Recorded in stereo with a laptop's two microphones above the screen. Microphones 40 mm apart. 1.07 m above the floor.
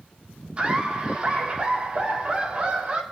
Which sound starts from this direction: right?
Laughter, at 0.6 s.